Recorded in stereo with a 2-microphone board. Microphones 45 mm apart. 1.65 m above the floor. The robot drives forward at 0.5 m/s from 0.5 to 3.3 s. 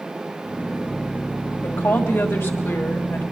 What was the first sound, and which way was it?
A woman speaking, 70° left (ahead or behind).